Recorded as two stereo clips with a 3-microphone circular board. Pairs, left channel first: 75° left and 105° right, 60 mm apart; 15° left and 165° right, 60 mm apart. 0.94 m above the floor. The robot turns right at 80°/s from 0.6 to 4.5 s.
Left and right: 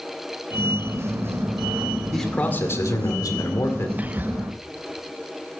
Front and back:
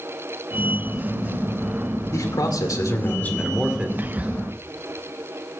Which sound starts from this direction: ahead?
A man speaking, at 2.1 s.